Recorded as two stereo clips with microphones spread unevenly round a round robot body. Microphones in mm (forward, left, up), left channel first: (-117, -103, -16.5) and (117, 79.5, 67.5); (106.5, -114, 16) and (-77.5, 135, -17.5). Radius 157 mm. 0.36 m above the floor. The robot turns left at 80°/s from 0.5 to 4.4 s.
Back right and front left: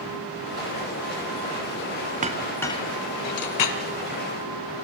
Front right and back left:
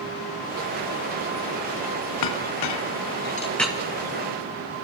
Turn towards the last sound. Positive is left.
turn(degrees=155)